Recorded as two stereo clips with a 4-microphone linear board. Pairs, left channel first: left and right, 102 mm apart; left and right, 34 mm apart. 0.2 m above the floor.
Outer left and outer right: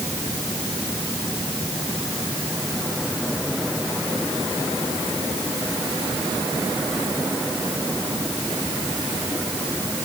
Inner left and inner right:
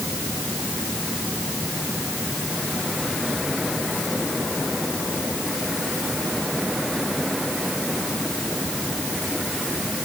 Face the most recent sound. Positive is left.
No sound to turn to.